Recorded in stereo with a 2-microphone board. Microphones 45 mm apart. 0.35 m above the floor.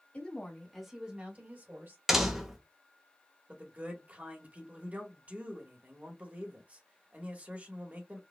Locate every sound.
0.1 s a woman speaking: 35° left (ahead or behind), 1.7 m; by 2.0 s 55° right (ahead or behind), 2.5 m
2.1 s a door slam: 5° right (ahead or behind), 0.9 m
3.5 s a man speaking: 35° right (ahead or behind), 1.4 m